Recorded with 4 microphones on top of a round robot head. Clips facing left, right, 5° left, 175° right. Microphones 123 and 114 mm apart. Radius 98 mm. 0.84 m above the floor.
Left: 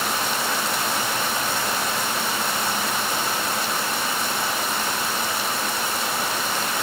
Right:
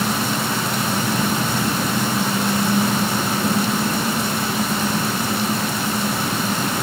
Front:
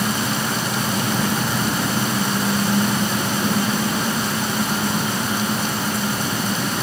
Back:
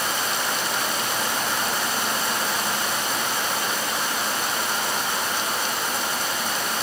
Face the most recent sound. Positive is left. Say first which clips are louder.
# right 4 dB, front 4 dB
turn(degrees=-40)